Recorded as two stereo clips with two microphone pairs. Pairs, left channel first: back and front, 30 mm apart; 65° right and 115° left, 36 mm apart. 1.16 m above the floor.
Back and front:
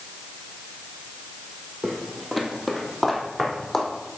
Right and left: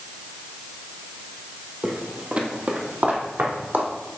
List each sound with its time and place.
1.8 s footsteps: 80° left, 1.3 m; by 3.9 s 100° left, 2 m